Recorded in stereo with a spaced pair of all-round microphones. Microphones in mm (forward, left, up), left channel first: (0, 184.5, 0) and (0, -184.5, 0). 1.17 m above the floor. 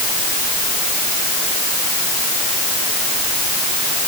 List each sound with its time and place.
Only background noise.